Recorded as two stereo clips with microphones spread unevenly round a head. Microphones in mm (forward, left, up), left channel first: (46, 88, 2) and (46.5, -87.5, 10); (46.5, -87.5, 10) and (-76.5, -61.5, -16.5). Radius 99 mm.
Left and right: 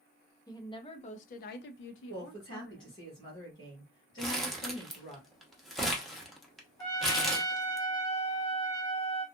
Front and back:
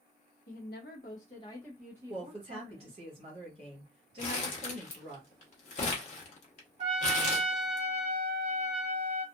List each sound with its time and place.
0.5 s a woman speaking: 20° left, 0.8 m; by 3.0 s 135° left, 0.8 m
2.1 s a woman speaking: 150° left, 1.3 m
4.2 s crumpling: straight ahead, 0.8 m
6.8 s a trumpet: 155° left, 1.1 m